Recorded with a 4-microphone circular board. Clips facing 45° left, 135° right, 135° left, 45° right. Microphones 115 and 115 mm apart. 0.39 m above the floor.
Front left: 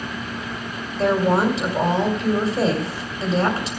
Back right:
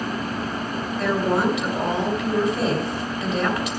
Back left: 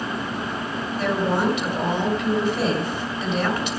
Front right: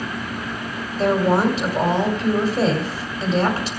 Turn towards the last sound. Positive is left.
turn(degrees=-5)